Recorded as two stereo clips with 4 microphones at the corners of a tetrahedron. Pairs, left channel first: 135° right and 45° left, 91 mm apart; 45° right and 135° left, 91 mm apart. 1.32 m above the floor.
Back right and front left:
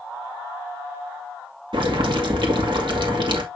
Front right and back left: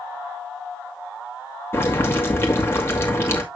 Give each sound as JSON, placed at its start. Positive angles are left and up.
{"t": 1.7, "sound": "boiling", "azimuth_deg": 15, "distance_m": 2.5}